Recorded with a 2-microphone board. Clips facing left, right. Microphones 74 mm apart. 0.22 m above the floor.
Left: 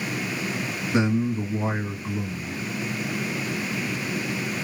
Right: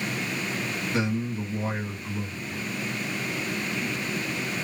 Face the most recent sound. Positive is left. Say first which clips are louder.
# left 6 dB
turn(degrees=20)  # may be behind; listen again after turning